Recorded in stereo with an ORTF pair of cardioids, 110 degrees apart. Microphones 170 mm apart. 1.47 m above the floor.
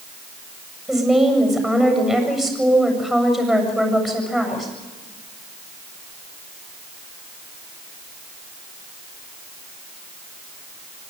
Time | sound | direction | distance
0.9 | a woman speaking | straight ahead | 7.5 m